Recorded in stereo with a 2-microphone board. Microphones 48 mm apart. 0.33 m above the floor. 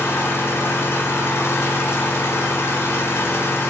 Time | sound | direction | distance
0.0 | an engine running | 65° left (ahead or behind) | 1.0 m